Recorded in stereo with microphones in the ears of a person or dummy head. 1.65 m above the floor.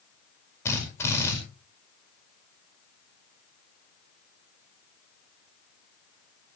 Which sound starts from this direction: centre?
A drill, at 0.7 s.